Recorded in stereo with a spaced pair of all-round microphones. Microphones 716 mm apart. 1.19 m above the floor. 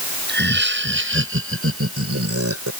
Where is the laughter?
15° right (ahead or behind); by 2.7 s 20° right (ahead or behind).